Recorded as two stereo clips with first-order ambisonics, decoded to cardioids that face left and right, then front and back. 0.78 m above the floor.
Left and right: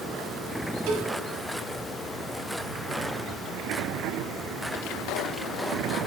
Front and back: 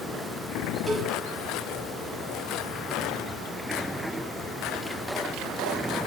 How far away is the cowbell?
About 0.9 m.